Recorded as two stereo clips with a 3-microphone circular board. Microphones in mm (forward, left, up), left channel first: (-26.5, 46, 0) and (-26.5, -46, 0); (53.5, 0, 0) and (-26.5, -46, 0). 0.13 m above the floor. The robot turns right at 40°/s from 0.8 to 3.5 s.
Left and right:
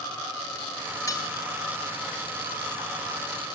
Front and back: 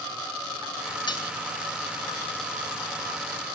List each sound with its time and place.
1.1 s cutlery clinking: 45° left, 1.0 m; by 1.2 s 55° left, 1.0 m